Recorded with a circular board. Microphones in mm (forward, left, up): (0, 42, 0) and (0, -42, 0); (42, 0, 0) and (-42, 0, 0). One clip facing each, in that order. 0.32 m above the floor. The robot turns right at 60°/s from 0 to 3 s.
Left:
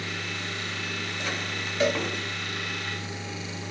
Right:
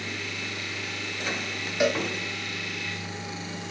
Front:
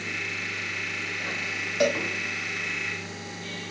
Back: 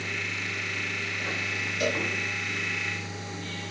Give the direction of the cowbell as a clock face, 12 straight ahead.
1 o'clock.